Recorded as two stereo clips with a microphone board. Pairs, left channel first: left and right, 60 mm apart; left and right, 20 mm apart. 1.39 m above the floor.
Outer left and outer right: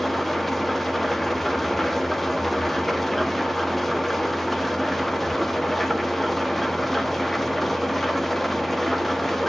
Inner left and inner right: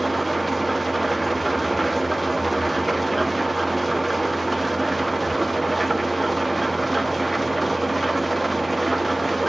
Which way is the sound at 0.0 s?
5° left (ahead or behind).